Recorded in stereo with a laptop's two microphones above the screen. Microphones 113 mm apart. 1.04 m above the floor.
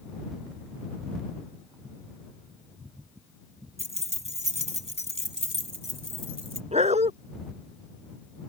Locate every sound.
3.8 s keys jangling: 70° right (ahead or behind)
6.7 s a dog barking: 80° right